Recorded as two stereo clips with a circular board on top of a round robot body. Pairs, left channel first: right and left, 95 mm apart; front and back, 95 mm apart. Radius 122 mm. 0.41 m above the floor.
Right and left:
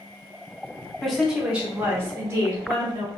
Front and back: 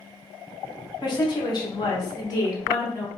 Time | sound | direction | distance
1.0 | a woman speaking | 5° right | 1.2 m